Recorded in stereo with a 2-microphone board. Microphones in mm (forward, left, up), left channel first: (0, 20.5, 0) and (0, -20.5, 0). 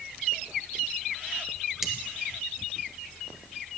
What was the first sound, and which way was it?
Cutlery clinking, 10° right (ahead or behind).